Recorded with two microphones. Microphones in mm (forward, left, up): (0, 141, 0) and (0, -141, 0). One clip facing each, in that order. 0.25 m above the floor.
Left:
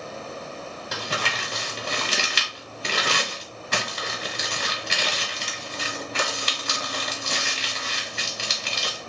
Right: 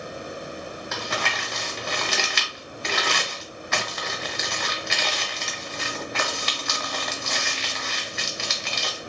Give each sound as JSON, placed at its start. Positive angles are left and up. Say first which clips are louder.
{"t": 0.9, "sound": "crumpling", "louder": "even", "side_deg": 40, "distance_m": 1.1}